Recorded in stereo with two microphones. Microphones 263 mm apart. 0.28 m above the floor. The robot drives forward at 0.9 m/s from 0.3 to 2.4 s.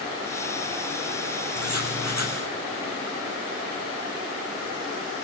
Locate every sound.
1.6 s writing: 80° right, 3.5 m; by 2.4 s 70° right (ahead or behind), 4 m